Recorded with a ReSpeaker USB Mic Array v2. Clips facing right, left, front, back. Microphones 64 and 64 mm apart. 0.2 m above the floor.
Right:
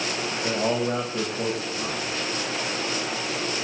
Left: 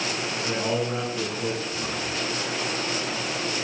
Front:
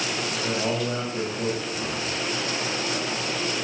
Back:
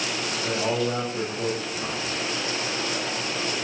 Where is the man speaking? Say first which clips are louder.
Right 2 dB, back 2 dB; 85° right, 9.5 m.